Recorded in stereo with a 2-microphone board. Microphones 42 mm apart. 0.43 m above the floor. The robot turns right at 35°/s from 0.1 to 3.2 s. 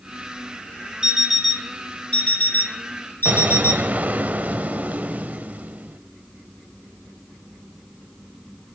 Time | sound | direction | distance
1.0 | an alarm clock | 10° right | 5 m
3.2 | an explosion | 40° right (ahead or behind) | 1.4 m